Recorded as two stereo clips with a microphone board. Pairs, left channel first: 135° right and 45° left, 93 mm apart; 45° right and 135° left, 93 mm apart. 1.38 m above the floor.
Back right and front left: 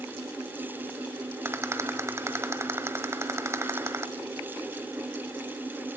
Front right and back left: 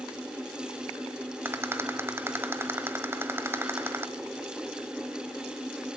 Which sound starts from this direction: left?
A rattle, at 1.4 s.